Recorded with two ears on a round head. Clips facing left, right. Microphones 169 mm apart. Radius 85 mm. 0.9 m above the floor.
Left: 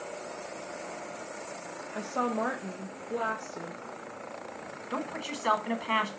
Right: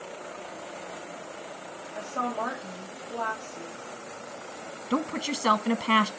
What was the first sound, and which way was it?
A woman speaking, 30° left (ahead or behind).